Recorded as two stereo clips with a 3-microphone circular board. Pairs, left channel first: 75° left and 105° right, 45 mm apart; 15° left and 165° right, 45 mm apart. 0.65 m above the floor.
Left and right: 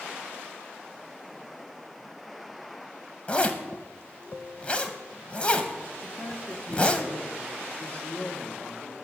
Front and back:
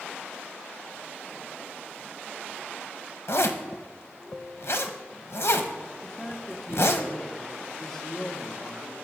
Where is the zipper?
15° left, 0.9 m.